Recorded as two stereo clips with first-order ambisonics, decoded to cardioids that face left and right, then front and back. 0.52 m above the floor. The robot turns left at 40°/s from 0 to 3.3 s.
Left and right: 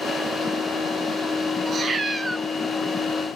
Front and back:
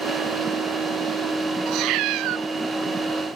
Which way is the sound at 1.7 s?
145° right.